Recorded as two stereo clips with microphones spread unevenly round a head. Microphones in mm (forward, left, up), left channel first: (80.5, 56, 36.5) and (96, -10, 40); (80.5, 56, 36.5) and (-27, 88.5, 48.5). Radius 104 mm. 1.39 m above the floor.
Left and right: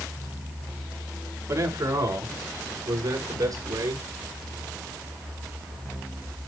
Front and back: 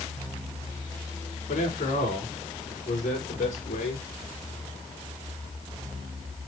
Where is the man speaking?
35° right, 5.5 m; by 4.1 s 50° right, 7 m.